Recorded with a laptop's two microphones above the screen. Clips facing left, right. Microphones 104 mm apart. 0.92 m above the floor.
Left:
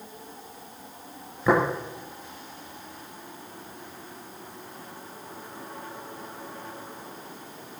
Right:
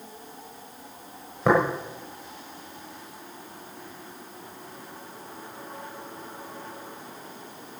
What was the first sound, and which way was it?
Tapping, 70° right (ahead or behind).